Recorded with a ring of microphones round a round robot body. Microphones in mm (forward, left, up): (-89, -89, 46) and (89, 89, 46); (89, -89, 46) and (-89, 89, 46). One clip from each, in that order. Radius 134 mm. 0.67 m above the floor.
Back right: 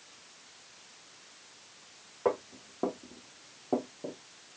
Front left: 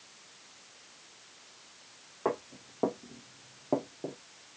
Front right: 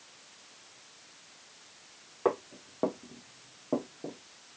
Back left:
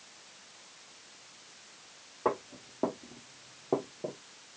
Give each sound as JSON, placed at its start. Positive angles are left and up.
{"t": 2.2, "sound": "footsteps", "azimuth_deg": -35, "distance_m": 1.3}